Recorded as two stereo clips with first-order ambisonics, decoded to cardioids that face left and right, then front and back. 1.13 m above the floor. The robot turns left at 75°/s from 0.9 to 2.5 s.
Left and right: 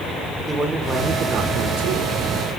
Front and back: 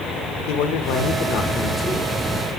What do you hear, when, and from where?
0.5 s a man speaking: 10° right, 1.4 m; by 2.5 s 130° right, 1.4 m